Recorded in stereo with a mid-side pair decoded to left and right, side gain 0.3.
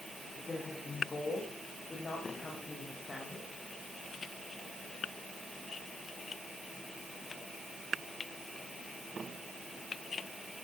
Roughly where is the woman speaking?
Ahead left.